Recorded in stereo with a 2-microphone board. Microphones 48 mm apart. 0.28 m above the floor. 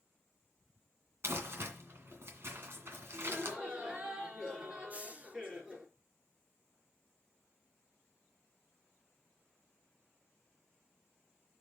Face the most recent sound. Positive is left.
turn(degrees=-30)  # may be behind; listen again after turning